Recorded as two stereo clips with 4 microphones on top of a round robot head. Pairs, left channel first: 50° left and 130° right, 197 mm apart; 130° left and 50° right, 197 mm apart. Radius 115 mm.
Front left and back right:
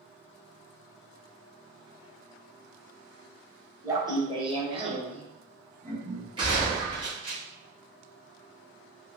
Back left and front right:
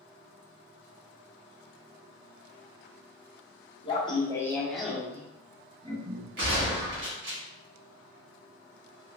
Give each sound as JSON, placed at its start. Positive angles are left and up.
{"t": 3.8, "sound": "laughter", "azimuth_deg": 170, "distance_m": 1.3}
{"t": 6.4, "sound": "a gunshot", "azimuth_deg": -65, "distance_m": 1.6}